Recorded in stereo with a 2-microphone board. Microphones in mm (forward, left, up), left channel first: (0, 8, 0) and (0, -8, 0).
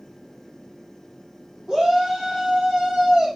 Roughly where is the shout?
Right.